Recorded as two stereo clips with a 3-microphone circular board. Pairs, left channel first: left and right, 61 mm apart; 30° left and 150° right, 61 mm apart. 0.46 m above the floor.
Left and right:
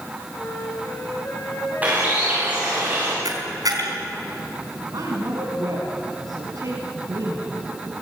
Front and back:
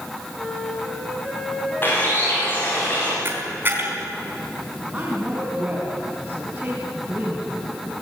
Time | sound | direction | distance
0.3 | a flute | 125° left | 7.5 m
1.8 | a bird | 25° right | 8 m
3.2 | a camera shutter | 95° right | 4 m
4.9 | a woman speaking | 80° right | 4.5 m